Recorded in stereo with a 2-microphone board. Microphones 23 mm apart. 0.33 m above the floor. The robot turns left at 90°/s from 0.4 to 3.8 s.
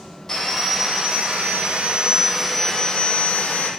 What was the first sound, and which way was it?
Sawing, 15° left.